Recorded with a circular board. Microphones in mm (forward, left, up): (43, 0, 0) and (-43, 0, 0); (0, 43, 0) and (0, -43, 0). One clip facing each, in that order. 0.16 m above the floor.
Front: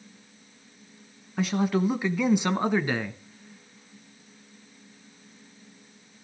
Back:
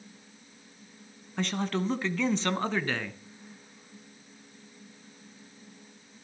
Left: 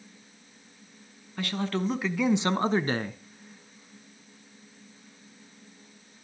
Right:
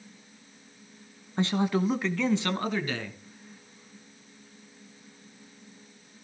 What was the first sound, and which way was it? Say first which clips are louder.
A man speaking: front 5 dB, right 4 dB; 75° right.